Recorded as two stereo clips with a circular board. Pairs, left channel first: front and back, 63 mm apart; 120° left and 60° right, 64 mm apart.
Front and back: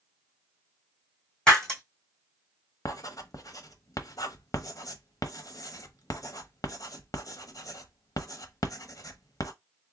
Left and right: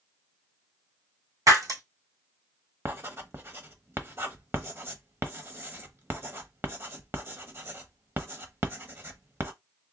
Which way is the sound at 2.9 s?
15° right.